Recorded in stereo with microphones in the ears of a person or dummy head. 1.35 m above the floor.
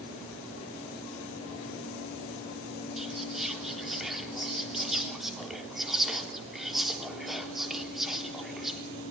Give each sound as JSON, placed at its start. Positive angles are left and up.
{"t": 3.0, "sound": "whispering", "side_deg": 0, "distance_m": 3.5}